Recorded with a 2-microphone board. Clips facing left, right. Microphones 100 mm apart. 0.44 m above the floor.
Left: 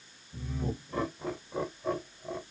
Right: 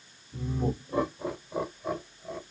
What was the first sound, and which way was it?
Laughter, 35° right (ahead or behind).